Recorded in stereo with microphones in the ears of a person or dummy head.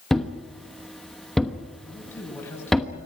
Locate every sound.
0.1 s a thud: 5° left (ahead or behind), 1.1 m
1.9 s a man speaking: 15° left (ahead or behind), 9.5 m